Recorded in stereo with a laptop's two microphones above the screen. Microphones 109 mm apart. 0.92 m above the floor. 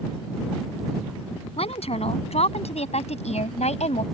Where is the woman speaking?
65° left (ahead or behind); by 4.0 s 85° left.